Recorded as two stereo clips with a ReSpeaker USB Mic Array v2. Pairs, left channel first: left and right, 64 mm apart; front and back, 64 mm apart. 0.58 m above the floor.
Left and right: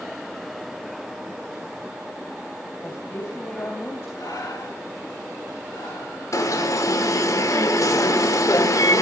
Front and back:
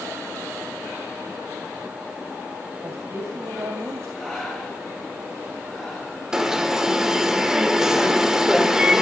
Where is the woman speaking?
140° left, 3 m.